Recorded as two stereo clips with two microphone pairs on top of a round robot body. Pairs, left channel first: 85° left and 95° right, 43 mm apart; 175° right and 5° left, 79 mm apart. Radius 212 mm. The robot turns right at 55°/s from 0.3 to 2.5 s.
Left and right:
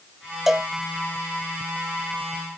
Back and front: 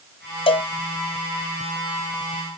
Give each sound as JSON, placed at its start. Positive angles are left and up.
{"t": 0.5, "sound": "a cowbell", "azimuth_deg": 180}